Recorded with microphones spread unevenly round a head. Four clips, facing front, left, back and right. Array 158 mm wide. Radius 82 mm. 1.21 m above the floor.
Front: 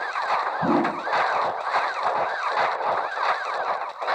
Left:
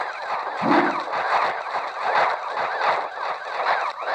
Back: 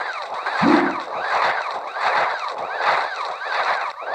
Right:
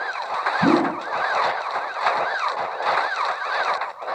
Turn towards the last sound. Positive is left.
turn(degrees=-160)